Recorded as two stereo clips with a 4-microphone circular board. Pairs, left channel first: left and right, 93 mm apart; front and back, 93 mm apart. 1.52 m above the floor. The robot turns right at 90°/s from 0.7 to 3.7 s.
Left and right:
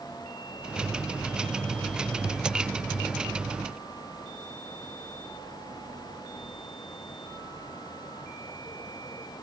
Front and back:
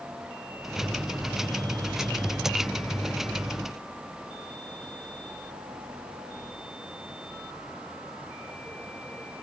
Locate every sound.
Only background noise.